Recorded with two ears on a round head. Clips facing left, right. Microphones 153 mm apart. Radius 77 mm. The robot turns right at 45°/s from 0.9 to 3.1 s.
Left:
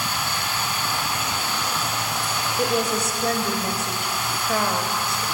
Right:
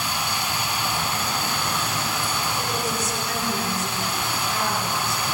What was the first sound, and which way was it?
Running water, 165° right.